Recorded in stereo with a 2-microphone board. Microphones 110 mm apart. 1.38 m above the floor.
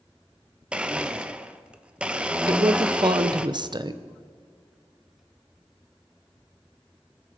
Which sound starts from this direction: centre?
A blender, at 0.7 s.